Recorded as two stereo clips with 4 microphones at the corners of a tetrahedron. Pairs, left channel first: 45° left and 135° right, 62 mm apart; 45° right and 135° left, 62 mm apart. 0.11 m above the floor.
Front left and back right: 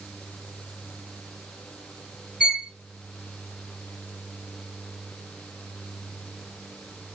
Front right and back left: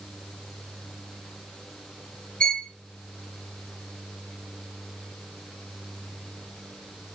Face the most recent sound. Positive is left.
turn(degrees=-90)